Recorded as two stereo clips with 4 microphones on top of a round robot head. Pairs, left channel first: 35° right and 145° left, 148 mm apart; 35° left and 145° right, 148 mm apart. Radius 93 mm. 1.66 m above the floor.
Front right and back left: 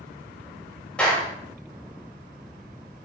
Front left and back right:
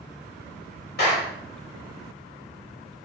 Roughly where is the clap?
Ahead left.